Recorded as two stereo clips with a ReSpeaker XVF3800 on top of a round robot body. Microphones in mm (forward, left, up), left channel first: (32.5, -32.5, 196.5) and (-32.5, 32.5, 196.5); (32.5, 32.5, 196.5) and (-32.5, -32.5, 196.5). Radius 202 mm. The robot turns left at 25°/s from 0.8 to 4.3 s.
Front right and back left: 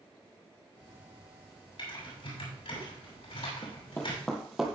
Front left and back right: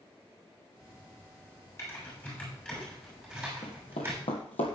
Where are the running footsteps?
10° left, 1.3 m; by 4.8 s 55° left, 1.6 m.